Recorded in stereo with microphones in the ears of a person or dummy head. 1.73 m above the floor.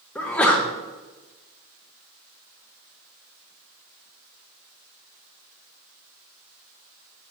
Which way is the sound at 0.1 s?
10° left (ahead or behind).